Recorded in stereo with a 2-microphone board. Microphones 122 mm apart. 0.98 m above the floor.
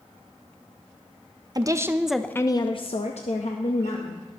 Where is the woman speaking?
35° right (ahead or behind), 0.7 m; by 4.4 s 75° left (ahead or behind), 1.6 m.